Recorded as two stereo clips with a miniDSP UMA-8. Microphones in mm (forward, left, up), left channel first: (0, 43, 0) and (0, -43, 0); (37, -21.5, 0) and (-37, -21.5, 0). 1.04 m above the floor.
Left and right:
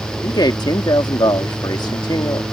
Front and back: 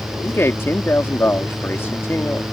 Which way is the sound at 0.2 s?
55° left.